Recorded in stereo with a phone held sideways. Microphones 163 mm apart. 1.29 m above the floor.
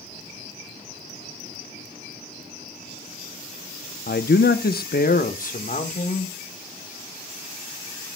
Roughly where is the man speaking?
Left.